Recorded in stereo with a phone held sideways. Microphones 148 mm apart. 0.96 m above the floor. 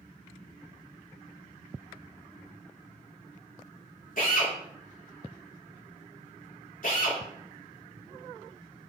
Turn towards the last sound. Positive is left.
turn(degrees=70)  # may be behind; listen again after turning